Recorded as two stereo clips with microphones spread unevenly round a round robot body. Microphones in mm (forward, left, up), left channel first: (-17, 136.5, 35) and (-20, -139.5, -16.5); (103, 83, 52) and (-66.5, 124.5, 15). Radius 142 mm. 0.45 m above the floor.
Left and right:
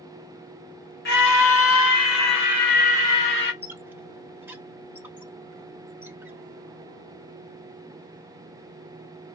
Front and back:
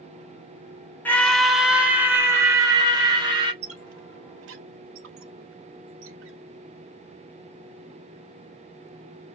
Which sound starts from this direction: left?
A scream, at 1.1 s.